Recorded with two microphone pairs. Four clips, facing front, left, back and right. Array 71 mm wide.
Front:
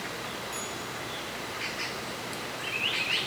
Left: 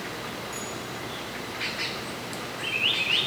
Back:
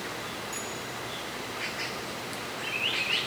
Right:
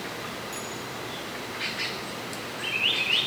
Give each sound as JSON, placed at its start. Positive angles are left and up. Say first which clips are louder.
{"t": 0.5, "sound": "a bell", "louder": "even, even", "azimuth_deg": -30, "distance_m": 9.0}